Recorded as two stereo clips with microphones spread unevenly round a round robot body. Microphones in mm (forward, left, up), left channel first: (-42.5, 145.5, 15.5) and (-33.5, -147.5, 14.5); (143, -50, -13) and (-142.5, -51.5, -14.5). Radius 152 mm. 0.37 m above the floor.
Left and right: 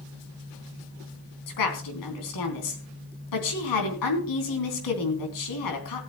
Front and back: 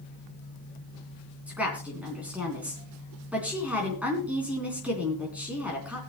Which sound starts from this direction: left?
A woman speaking, at 1.5 s.